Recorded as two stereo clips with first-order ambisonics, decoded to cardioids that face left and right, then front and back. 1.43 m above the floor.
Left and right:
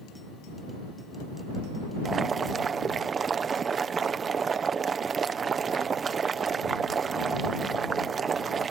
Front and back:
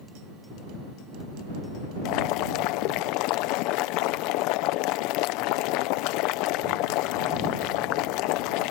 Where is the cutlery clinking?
I don't hear cutlery clinking.